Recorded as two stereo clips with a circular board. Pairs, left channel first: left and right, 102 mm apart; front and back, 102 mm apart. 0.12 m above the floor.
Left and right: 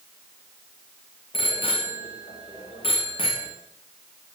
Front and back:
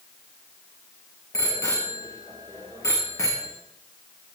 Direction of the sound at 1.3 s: 60° left.